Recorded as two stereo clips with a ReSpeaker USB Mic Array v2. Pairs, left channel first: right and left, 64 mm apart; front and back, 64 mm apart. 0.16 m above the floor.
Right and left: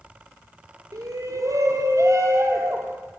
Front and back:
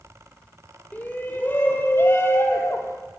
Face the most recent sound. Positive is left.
turn(degrees=45)